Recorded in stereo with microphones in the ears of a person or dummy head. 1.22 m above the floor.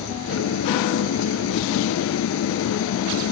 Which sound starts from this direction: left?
An engine running, at 0.0 s.